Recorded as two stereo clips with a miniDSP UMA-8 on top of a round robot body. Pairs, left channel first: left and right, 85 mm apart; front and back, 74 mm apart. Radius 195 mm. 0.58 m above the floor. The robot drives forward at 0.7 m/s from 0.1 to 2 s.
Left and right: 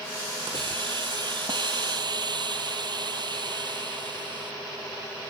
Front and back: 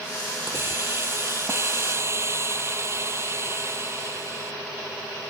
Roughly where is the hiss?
Behind right.